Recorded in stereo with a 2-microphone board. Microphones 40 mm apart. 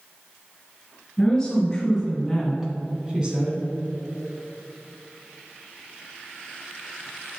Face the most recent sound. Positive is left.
turn(degrees=-25)  # may be behind; listen again after turning